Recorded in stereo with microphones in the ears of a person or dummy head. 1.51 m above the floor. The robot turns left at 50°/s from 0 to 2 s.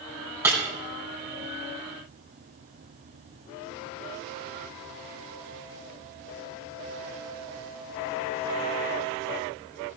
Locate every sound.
0.4 s breaking glass: 15° right (ahead or behind), 3 m; by 0.6 s 5° right (ahead or behind), 3 m